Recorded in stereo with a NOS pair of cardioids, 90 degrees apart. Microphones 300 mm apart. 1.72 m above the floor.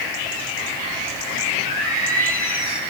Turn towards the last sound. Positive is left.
turn(degrees=45)